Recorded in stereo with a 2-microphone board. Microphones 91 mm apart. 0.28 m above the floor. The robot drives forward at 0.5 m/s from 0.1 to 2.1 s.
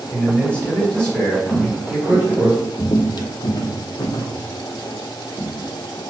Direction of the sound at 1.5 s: 10° left (ahead or behind).